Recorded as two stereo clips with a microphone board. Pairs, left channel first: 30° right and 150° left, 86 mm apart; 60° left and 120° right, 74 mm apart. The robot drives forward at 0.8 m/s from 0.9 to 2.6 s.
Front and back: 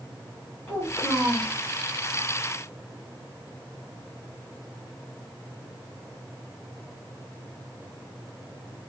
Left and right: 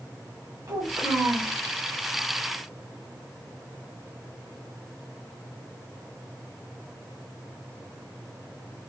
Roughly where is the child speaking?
Right.